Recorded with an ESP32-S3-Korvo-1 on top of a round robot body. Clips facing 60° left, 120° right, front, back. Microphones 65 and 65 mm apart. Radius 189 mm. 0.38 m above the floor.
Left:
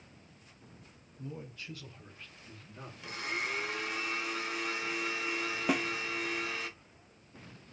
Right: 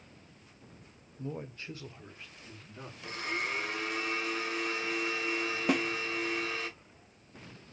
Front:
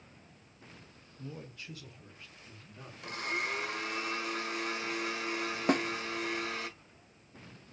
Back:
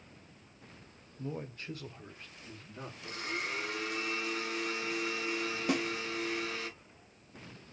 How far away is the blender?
About 1.9 m.